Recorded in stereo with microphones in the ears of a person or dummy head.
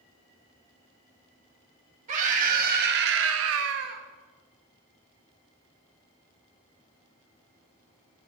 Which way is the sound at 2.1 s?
40° right (ahead or behind).